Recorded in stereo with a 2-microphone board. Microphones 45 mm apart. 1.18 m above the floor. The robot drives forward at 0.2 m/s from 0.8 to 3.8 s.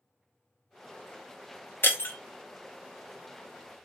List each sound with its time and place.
1.8 s breaking glass: 60° left (ahead or behind), 0.9 m